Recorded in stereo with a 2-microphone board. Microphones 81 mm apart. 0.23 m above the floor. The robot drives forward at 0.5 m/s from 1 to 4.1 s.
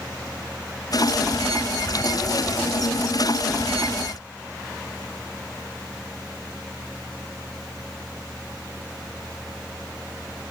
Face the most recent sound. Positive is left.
No sound to turn to.